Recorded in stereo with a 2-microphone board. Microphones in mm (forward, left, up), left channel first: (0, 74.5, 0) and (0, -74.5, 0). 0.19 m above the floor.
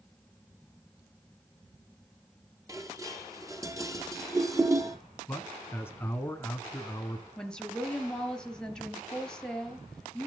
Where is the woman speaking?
5° left (ahead or behind), 3 m.